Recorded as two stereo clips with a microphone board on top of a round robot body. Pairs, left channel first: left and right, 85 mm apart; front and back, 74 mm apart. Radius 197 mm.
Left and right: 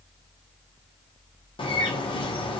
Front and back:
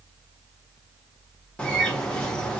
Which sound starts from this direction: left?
A bird, at 1.6 s.